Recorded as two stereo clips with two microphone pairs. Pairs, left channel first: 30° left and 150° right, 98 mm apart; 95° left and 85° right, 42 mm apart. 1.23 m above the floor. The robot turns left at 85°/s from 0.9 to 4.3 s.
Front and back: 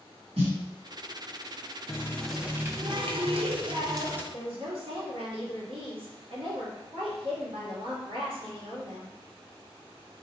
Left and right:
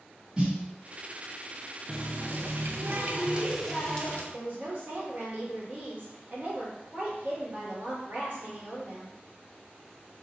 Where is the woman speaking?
130° right, 2.0 m.